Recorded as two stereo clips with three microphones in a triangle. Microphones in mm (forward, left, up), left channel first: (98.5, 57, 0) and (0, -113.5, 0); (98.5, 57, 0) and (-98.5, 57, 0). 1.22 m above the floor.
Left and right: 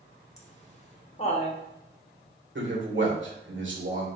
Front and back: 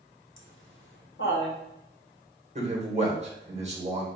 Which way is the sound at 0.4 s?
5° left.